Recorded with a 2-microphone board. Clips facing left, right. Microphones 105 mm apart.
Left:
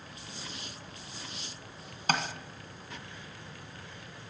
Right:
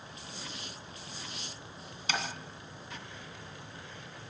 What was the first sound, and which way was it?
Tapping, 50° left (ahead or behind).